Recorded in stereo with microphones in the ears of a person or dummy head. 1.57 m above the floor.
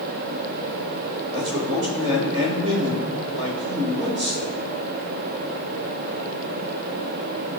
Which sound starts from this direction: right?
A man speaking, at 1.3 s.